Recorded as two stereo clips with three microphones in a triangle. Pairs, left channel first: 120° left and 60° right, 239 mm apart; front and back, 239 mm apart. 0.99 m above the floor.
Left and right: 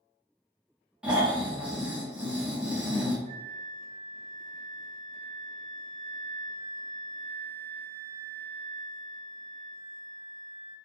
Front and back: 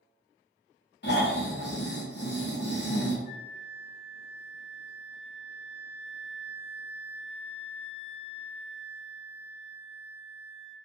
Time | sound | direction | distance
1.0 | snoring | 25° left | 0.7 m
3.2 | a flute | 70° left | 1.3 m